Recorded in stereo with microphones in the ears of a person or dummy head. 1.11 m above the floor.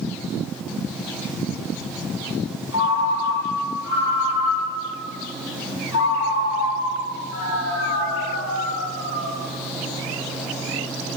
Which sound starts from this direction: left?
A ringtone, at 2.7 s.